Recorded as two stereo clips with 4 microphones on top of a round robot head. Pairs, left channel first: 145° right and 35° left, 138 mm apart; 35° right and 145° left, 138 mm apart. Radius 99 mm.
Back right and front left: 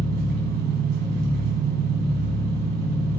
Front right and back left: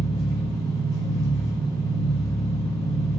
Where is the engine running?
30° left, 3 m.